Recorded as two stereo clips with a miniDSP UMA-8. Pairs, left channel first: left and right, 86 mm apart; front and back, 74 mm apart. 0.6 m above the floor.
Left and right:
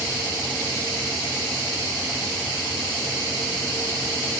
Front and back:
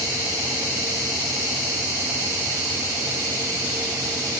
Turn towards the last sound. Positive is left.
No sound to turn to.